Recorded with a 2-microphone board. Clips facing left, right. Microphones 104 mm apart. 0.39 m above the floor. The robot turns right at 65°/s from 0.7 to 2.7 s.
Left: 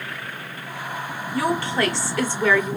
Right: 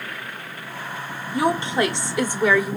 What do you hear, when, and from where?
1.3 s a woman speaking: 20° right (ahead or behind), 0.9 m; by 2.8 s 10° right (ahead or behind), 0.9 m